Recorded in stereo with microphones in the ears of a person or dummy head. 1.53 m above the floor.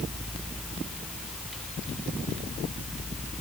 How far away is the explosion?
I don't hear an explosion.